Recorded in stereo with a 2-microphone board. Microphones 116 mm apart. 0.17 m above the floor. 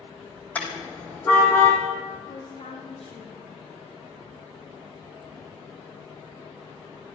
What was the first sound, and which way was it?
A car horn, 15° left (ahead or behind).